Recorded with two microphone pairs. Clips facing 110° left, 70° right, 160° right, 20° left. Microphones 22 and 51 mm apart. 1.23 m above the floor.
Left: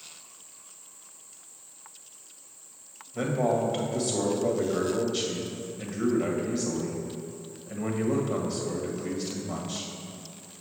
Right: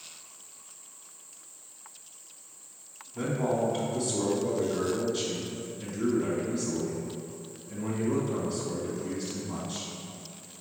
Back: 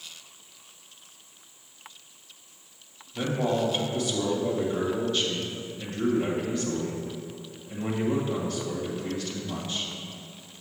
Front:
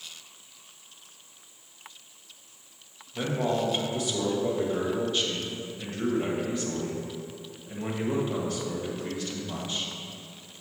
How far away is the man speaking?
About 1.5 m.